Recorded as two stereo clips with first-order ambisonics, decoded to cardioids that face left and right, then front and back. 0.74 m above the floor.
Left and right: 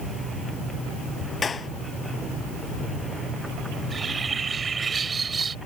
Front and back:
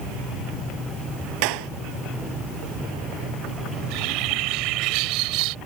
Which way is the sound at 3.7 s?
160° right.